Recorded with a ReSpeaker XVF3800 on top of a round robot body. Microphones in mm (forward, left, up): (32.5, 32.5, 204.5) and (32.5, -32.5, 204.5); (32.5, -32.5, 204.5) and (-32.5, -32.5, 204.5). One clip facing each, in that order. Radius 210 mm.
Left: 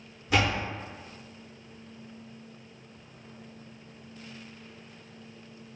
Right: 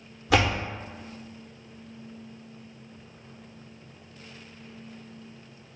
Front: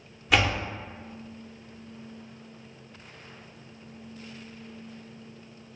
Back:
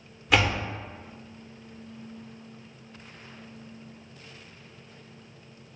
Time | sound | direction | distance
0.3 | a door slam | 90° right | 0.5 m